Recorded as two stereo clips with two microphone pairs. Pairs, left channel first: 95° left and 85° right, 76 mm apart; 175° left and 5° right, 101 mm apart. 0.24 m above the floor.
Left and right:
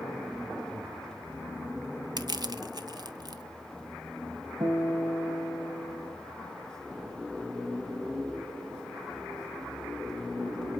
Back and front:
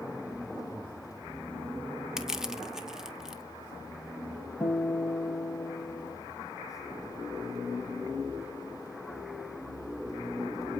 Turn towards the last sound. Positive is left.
turn(degrees=-115)